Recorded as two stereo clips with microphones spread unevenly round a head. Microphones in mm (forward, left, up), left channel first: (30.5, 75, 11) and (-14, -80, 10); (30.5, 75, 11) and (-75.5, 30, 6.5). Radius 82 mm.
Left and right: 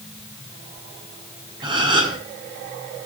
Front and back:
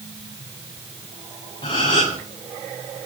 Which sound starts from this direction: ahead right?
A gasp, at 1.6 s.